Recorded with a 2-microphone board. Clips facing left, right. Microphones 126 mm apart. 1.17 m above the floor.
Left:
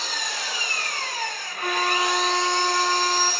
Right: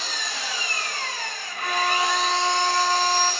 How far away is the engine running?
About 1.4 m.